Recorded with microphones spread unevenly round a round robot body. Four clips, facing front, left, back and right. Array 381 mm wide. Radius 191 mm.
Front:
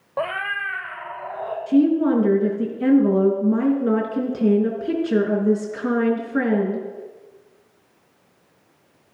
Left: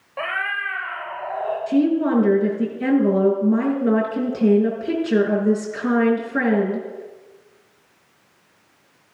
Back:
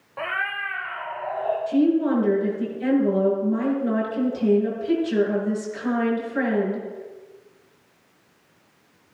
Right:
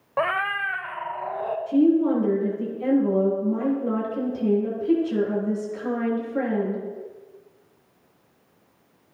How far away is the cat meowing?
About 0.9 m.